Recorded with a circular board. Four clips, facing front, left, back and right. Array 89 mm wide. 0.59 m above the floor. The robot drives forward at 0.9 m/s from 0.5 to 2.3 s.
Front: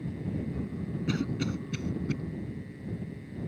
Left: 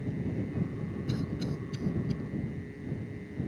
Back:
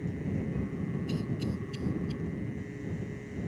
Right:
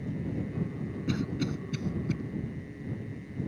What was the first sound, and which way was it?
A cough, 20° right.